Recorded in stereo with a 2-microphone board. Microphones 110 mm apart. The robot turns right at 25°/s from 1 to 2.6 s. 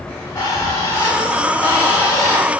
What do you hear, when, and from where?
0.1 s a bird: 70° left, 1.1 m; by 2.5 s 105° left, 1.1 m